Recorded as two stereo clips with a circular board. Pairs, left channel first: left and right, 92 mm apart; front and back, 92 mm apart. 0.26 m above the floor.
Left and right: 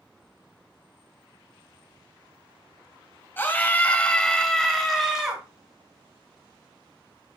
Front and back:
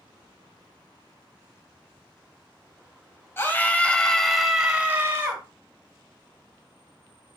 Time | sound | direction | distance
3.4 | a scream | 40° left | 1.5 m